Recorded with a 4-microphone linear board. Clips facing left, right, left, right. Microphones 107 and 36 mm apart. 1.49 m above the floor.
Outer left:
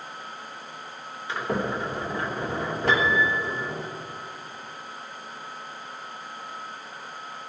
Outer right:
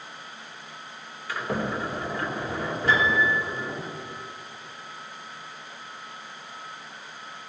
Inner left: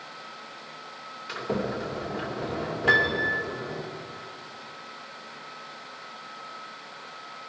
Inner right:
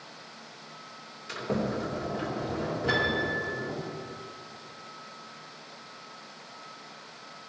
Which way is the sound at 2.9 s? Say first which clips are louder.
Even, inner left 6 dB; 80° left.